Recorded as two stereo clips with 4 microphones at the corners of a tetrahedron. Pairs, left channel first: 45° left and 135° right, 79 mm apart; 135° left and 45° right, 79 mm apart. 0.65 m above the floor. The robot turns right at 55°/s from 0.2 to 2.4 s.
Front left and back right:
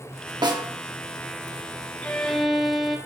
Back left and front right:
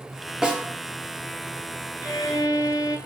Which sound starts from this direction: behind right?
A snare drum, at 0.4 s.